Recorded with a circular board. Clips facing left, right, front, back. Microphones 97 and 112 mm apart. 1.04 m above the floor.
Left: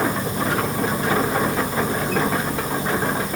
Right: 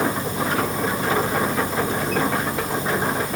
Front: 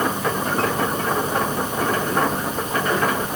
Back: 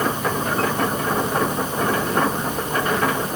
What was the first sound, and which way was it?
Only background noise.